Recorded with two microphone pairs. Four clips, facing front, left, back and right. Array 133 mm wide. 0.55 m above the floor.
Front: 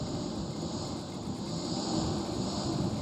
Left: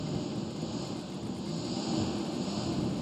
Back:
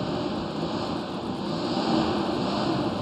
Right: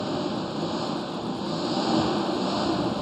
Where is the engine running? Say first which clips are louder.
Right 7 dB, back 8 dB; 120° right.